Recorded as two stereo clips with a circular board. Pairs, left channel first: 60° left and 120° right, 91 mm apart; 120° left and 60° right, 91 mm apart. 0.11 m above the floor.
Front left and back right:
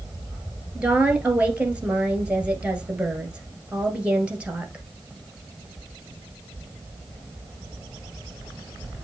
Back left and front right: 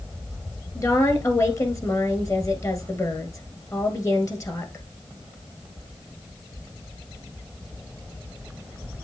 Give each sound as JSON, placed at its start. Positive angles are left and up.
{"t": 0.8, "sound": "a woman speaking", "azimuth_deg": 165, "distance_m": 1.6}